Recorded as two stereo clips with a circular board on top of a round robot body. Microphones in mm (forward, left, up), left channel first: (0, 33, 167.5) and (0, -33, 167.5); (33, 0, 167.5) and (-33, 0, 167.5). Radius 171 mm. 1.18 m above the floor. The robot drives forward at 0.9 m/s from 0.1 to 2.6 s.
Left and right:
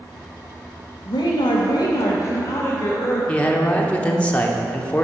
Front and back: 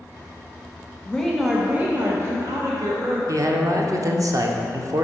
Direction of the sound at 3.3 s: 160° left.